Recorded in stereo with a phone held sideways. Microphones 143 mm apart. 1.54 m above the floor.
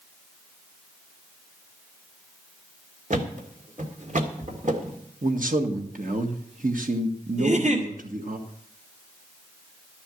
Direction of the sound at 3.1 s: 60° right (ahead or behind).